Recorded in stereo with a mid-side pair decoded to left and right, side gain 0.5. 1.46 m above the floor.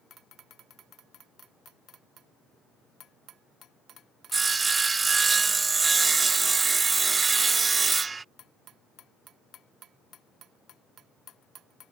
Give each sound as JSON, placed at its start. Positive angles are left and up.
{"t": 4.3, "sound": "sawing", "azimuth_deg": -30}